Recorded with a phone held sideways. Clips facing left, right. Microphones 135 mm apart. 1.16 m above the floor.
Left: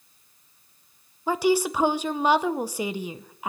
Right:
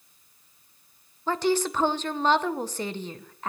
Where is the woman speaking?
10° left (ahead or behind), 0.6 m.